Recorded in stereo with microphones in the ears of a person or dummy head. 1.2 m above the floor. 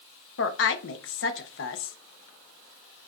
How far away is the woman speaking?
About 0.6 m.